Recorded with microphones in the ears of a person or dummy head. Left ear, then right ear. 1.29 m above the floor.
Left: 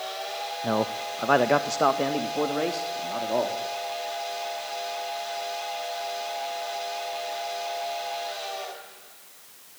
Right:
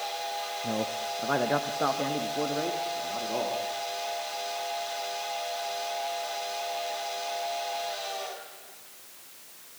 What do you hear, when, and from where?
0.6 s a man speaking: 40° left (ahead or behind), 0.8 m; by 3.6 s 80° left, 3 m